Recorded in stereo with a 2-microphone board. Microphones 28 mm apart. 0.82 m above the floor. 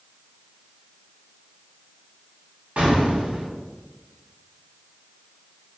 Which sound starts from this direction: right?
An explosion, at 2.8 s.